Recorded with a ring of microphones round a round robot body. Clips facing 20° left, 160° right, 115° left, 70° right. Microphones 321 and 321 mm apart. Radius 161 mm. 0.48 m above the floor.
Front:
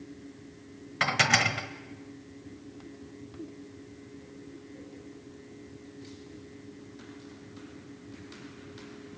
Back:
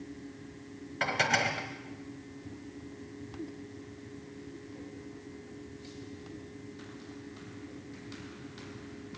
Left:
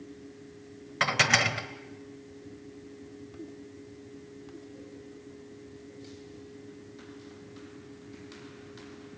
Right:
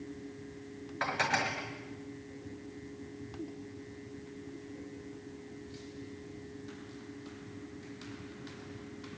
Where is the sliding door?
No sliding door in this recording.